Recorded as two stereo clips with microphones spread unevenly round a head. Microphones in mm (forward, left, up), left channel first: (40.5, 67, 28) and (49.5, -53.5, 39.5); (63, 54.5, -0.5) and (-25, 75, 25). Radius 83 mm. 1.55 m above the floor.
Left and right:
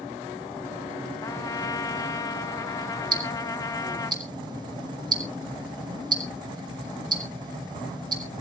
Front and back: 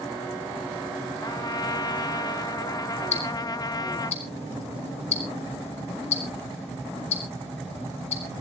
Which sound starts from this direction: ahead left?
A trumpet, at 1.2 s.